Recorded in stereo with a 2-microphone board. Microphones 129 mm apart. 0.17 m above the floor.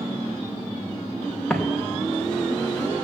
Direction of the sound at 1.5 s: Centre (ahead or behind).